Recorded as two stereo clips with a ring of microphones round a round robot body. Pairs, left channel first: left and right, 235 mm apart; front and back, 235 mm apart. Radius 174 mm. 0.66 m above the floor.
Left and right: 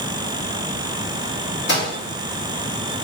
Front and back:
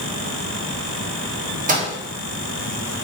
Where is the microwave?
125° left, 1.0 m.